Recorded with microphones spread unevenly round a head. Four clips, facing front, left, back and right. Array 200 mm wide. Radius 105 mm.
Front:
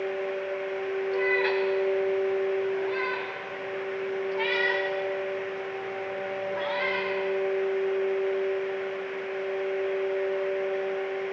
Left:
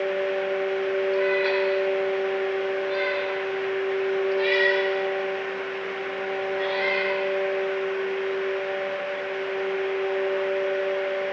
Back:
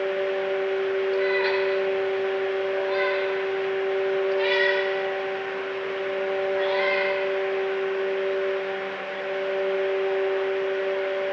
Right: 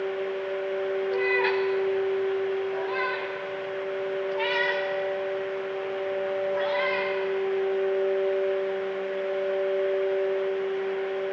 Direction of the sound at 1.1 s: 90° right.